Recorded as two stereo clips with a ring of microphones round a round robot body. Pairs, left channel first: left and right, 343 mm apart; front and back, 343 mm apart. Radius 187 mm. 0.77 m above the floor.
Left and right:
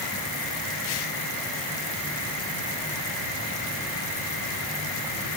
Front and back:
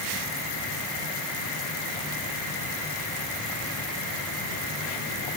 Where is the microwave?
I don't hear a microwave.